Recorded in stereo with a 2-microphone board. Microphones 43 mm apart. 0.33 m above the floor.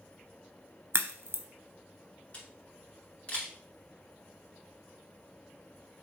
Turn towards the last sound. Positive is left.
turn(degrees=30)  # may be behind; listen again after turning